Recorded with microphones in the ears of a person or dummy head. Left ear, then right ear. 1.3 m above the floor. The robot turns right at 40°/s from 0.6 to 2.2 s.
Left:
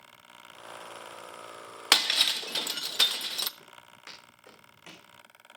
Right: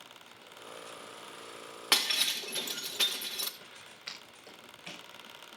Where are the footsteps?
45° left (ahead or behind), 6 m; by 5.1 s 35° left (ahead or behind), 5.5 m.